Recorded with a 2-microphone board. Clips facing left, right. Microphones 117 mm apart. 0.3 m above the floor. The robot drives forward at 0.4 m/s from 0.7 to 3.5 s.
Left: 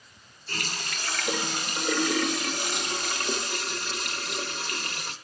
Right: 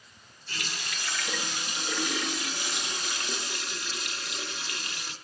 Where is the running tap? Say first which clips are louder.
Left 3 dB; 45° left (ahead or behind), 1.3 m; by 5.1 s 50° left (ahead or behind), 1.3 m.